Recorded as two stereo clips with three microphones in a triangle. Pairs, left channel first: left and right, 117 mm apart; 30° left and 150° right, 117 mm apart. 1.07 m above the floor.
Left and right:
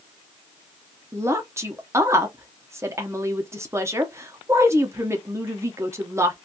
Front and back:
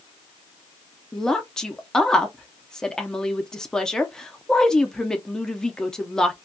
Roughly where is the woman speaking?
Ahead right.